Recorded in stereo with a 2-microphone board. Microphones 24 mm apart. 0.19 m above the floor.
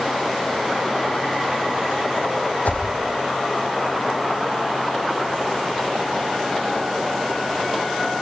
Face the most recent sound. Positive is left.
turn(degrees=80)